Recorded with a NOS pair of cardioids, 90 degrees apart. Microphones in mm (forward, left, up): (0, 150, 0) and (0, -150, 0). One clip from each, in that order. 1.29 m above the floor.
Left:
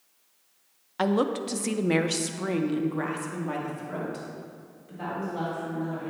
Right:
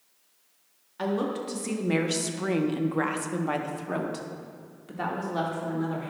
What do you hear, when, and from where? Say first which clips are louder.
1.0 s a woman speaking: left 4 dB; 45° left, 0.9 m; by 6.1 s 60° right, 2 m